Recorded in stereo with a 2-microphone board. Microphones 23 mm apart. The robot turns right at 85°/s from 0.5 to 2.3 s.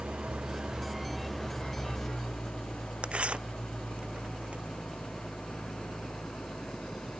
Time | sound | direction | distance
0.0 | an engine running | 60° right | ?
3.0 | tearing paper | 60° right (ahead or behind) | ?